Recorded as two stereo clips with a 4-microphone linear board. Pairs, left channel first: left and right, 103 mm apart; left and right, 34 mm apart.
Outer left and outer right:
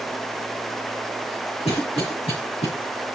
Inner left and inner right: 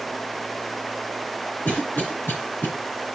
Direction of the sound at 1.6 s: 70° left (ahead or behind).